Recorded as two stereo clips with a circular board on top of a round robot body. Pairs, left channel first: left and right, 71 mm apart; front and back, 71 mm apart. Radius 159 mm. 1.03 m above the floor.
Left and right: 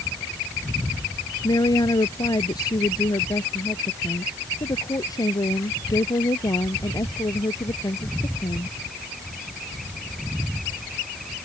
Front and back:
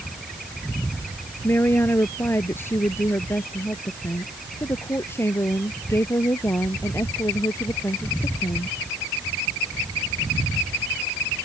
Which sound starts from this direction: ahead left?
A woman speaking, at 1.4 s.